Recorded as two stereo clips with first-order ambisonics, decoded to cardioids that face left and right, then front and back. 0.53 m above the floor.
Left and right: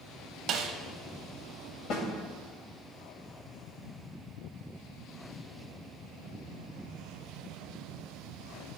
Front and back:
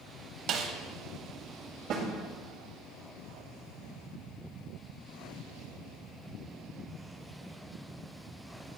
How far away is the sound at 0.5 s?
About 0.7 m.